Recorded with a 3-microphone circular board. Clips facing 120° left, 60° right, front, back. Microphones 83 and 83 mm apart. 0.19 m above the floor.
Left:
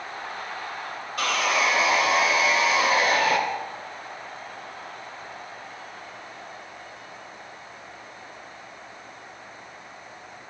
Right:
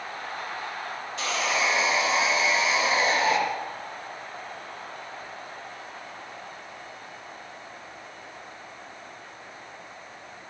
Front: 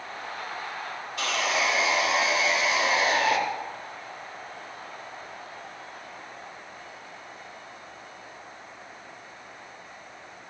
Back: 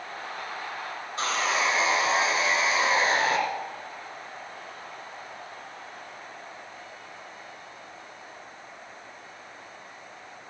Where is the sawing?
125° left, 2.5 m.